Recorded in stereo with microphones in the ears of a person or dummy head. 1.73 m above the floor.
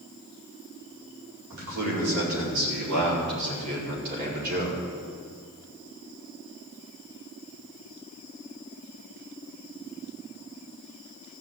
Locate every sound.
1.5 s a man speaking: 85° right, 4.5 m; by 4.8 s 50° right (ahead or behind), 4.5 m